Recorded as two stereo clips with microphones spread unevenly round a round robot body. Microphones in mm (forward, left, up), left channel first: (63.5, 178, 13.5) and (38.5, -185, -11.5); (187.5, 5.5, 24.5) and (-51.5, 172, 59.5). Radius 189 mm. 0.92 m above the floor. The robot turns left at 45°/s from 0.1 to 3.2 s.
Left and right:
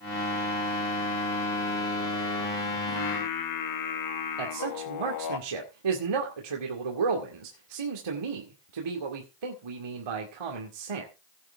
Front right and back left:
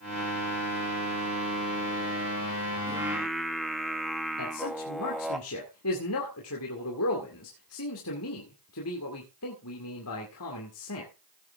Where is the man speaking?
85° right, 2 m.